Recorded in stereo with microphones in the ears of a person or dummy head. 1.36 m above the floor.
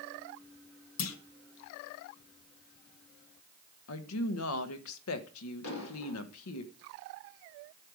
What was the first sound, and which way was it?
A clunk, 80° left.